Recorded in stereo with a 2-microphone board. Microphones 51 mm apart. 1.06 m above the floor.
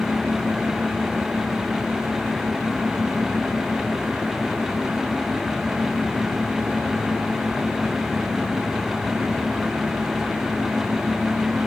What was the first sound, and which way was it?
Only background noise.